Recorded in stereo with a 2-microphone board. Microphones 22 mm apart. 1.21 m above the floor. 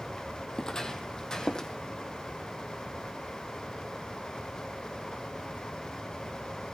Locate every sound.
0.5 s footsteps: 30° left (ahead or behind), 1.8 m